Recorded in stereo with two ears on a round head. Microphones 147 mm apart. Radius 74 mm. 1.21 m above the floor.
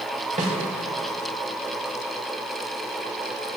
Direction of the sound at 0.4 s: 45° right (ahead or behind).